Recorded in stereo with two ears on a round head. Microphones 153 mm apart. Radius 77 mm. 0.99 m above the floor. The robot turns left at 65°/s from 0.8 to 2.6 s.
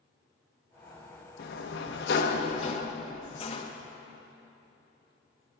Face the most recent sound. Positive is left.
turn(degrees=35)